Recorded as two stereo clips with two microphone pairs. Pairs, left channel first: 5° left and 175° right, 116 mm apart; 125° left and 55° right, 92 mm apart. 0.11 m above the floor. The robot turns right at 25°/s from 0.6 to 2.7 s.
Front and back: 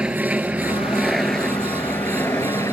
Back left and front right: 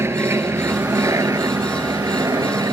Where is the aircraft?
100° right; by 2.7 s 50° right.